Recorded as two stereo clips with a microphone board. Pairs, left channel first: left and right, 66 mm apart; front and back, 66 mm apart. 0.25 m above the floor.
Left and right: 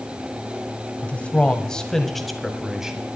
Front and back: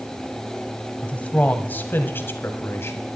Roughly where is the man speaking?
Ahead left.